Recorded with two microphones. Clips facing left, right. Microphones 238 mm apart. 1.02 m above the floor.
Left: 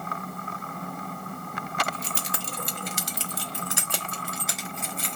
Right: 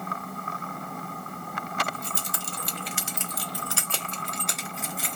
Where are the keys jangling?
85° left, 0.8 m; by 5.2 s 5° right (ahead or behind), 1.5 m.